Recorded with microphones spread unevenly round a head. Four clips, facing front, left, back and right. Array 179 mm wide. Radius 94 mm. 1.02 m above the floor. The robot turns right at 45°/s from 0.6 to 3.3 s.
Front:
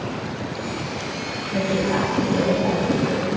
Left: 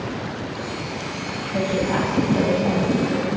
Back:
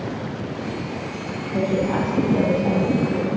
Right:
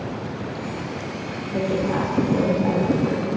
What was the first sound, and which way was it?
A woman speaking, 110° right.